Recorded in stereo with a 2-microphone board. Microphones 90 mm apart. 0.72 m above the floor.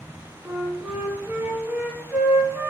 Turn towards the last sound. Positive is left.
turn(degrees=-20)  # may be behind; listen again after turning